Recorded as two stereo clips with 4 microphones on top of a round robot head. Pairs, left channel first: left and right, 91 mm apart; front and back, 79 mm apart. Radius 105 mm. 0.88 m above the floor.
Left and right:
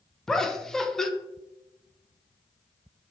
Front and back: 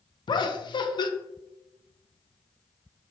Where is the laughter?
5° left, 0.5 m.